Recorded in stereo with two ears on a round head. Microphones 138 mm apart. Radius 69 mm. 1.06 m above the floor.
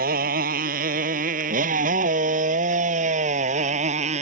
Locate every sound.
0.0 s a motorcycle: 60° right (ahead or behind); by 4.2 s 45° right (ahead or behind)